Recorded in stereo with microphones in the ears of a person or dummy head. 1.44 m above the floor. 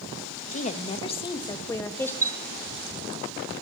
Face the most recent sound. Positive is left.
turn(degrees=-20)  # may be behind; listen again after turning